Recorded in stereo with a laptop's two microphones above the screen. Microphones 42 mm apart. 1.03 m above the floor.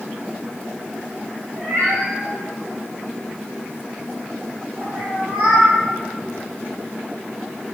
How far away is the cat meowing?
About 2.5 m.